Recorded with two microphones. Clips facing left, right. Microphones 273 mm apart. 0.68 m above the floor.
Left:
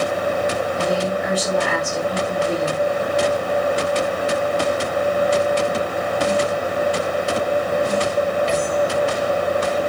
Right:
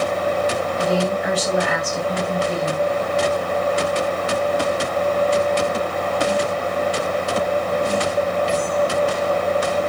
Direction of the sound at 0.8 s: 65° left (ahead or behind).